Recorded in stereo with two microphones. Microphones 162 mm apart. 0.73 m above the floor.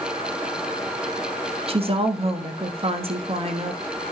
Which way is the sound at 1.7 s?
40° right (ahead or behind).